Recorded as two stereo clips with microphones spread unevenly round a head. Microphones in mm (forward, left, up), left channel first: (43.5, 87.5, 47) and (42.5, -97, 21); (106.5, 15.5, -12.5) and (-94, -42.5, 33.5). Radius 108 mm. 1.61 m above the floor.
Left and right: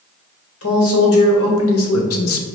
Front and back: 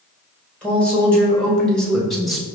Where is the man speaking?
100° left, 1.5 m; by 2.5 s 110° left, 0.5 m.